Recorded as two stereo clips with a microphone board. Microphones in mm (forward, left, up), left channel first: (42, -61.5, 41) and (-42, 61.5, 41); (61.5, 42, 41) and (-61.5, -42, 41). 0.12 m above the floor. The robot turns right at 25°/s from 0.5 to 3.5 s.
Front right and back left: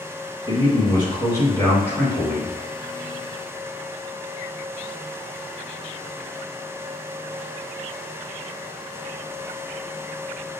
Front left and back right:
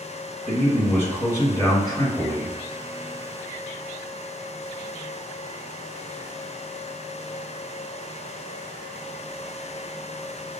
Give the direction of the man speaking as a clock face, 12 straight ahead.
1 o'clock.